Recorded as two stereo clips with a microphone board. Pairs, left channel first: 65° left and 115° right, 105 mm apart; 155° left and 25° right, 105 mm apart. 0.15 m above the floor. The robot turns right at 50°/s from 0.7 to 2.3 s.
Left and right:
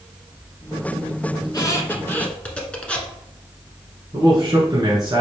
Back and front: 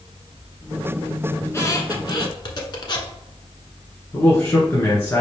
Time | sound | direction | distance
1.4 | a squeak | 100° left | 1.0 m
4.1 | a man speaking | 145° right | 1.5 m